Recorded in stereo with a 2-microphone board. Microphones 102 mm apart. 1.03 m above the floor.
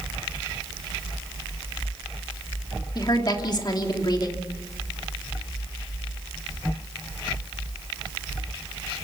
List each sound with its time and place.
3.0 s a woman speaking: 40° left (ahead or behind), 2.5 m